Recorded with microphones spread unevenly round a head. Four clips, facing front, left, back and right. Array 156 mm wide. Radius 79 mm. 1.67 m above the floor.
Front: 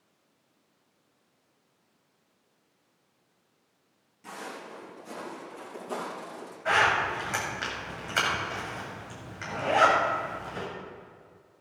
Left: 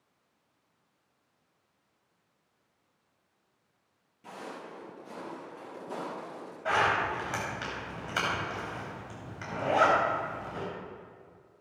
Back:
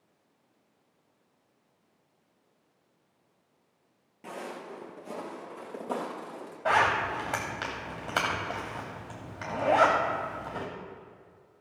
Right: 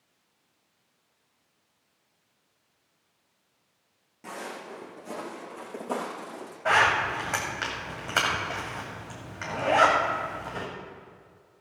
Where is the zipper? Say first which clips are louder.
Right 4 dB, even; 160° right, 3 m.